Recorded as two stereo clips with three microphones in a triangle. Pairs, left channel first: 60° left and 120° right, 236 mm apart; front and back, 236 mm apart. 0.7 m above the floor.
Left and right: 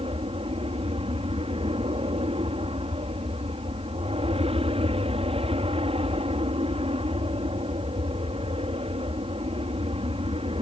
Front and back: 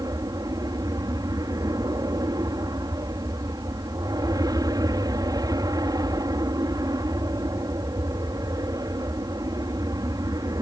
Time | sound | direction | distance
0.0 | an aircraft | 130° right | ?